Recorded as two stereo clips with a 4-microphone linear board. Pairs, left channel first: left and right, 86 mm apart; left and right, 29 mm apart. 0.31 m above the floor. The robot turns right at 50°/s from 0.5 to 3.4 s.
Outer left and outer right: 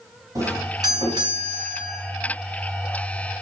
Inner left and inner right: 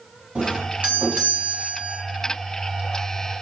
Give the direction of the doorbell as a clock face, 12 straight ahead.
4 o'clock.